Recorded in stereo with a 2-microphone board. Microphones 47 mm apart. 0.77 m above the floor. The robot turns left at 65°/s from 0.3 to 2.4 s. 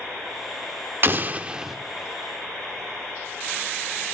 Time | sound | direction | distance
1.0 | an explosion | 125° right | 0.6 m